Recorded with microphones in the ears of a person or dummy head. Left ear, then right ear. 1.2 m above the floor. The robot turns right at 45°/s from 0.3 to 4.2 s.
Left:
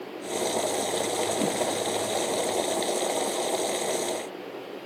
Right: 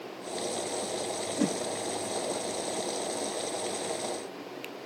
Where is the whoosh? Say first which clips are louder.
Left 3 dB; 50° right (ahead or behind), 0.7 m.